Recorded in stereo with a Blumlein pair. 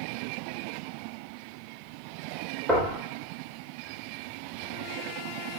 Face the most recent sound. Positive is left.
turn(degrees=-5)